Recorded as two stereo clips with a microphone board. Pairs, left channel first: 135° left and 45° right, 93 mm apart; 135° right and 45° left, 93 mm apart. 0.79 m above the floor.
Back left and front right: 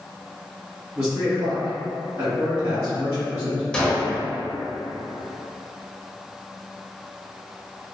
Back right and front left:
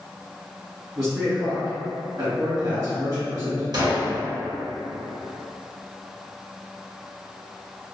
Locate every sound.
0.9 s a man speaking: 5° left, 1.5 m
3.7 s a gunshot: 55° left, 0.7 m